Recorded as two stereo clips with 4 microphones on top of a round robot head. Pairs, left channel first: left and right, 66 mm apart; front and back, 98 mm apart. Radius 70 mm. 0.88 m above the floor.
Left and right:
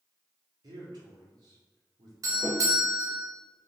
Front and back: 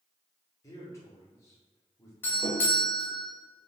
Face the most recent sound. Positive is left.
turn(degrees=-70)